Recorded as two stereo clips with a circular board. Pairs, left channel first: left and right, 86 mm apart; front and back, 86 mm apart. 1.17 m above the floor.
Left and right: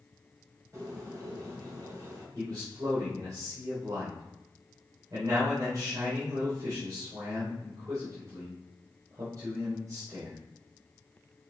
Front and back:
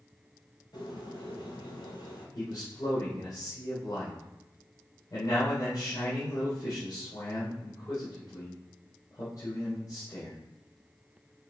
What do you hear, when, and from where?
0.7 s a bird: 35° right, 4.5 m
2.4 s a man speaking: 45° right, 3.5 m